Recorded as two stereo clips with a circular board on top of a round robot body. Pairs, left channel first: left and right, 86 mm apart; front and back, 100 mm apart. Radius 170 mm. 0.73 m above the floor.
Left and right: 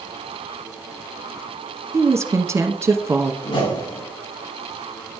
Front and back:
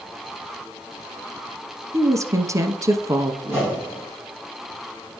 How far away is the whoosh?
About 6.5 m.